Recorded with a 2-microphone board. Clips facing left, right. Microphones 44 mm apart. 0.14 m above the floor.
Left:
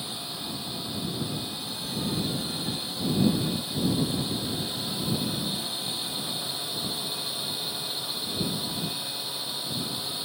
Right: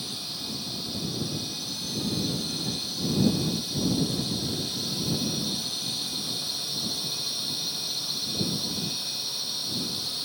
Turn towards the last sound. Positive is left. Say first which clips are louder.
# left 1 dB
turn(degrees=20)  # may be behind; listen again after turning